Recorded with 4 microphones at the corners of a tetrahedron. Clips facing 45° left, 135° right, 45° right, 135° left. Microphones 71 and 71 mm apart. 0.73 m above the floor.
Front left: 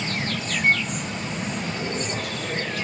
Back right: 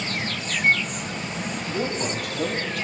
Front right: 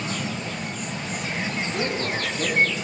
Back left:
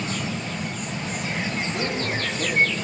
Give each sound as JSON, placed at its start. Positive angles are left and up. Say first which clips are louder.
{"t": 1.7, "sound": "a man speaking", "louder": "back right 2 dB, even", "azimuth_deg": -125, "distance_m": 5.5}